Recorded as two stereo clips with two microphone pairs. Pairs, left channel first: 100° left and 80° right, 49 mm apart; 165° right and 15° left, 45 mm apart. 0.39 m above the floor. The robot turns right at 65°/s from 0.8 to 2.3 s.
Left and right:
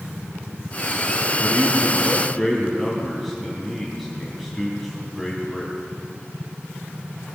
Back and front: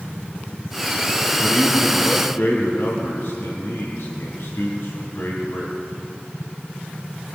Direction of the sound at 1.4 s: 130° left.